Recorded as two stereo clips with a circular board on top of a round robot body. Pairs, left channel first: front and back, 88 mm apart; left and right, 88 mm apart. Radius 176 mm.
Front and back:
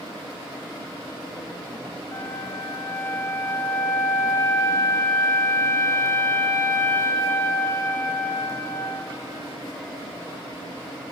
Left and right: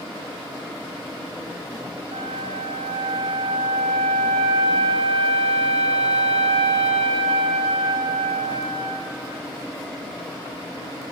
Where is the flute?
65° right, 1.0 m.